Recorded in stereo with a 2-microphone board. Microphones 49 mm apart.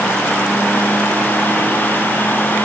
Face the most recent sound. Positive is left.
No sound to turn to.